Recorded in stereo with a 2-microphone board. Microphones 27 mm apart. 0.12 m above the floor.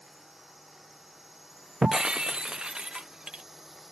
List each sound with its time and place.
0.0 s a drone: centre (ahead or behind); by 3.9 s 10° right (ahead or behind)
1.8 s breaking glass: 25° right (ahead or behind)